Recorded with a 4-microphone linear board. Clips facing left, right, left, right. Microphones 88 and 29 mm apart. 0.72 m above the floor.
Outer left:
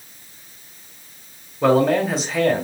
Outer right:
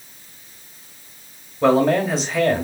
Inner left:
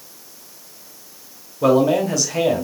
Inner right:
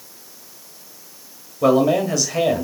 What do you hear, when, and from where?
1.6 s a man speaking: centre (ahead or behind), 1.2 m